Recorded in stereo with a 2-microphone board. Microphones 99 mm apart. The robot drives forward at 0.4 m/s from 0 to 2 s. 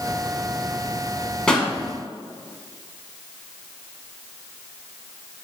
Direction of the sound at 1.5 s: 5° left (ahead or behind).